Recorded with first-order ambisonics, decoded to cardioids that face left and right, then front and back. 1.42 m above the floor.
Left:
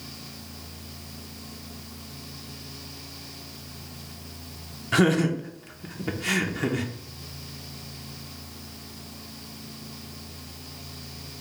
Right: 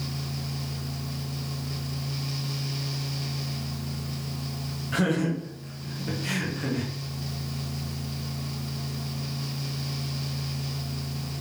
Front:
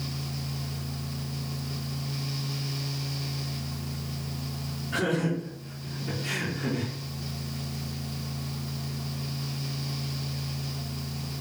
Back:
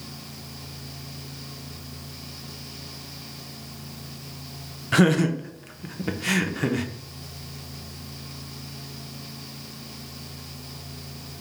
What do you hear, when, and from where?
4.9 s laughter: 150° left, 0.7 m